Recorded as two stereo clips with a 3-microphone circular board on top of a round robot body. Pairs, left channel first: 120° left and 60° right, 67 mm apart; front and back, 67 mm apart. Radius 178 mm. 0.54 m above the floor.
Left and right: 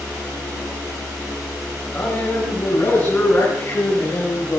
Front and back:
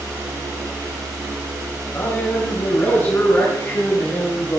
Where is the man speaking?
50° left, 7 m; by 4.6 s 60° left, 8 m.